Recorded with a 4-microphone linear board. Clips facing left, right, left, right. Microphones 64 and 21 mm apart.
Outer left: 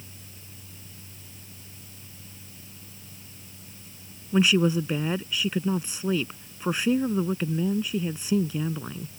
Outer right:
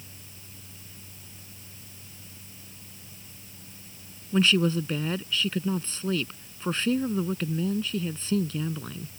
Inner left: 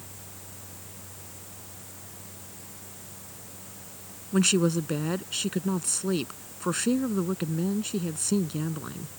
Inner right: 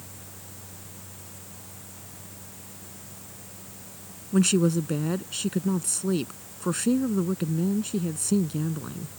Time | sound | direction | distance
4.3 | a woman speaking | 15° left (ahead or behind) | ?